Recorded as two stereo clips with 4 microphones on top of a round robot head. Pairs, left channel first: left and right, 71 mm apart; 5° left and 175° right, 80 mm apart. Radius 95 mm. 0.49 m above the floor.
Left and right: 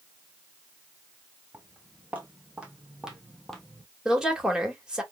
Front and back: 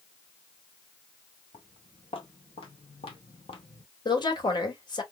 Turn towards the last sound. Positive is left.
turn(degrees=-10)